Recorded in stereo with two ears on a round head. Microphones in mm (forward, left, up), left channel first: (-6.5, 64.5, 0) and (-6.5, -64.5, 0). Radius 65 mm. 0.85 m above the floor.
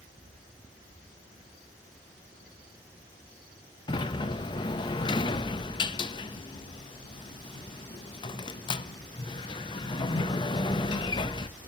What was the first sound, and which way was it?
A sliding door, 30° left (ahead or behind).